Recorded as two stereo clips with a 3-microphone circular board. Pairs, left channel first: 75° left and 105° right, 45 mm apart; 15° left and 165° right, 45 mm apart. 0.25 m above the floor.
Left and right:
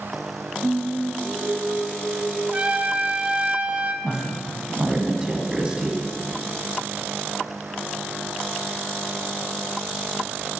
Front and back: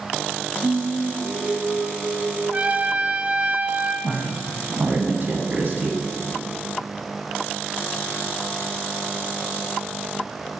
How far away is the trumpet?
About 0.8 m.